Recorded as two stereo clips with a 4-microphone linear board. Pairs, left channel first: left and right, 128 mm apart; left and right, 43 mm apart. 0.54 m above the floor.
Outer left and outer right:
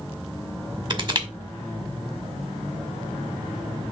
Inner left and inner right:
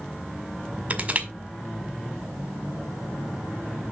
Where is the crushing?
35° right (ahead or behind), 1.7 m.